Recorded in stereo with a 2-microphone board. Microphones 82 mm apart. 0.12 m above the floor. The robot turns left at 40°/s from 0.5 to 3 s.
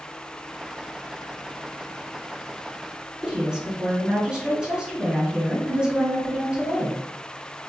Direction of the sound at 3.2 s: 10° right (ahead or behind).